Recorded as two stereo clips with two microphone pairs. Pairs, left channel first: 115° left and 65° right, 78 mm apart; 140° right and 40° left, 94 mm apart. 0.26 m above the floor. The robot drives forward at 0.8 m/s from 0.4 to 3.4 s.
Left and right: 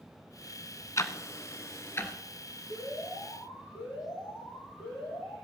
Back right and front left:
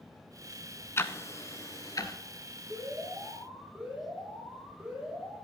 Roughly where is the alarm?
Left.